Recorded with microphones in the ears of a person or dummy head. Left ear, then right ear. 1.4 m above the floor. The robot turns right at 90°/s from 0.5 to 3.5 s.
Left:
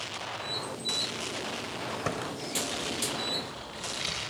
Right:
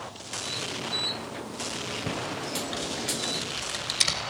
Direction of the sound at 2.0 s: 50° left (ahead or behind).